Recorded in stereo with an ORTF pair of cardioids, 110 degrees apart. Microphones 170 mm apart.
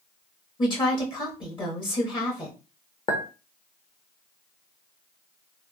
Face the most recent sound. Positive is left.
turn(degrees=30)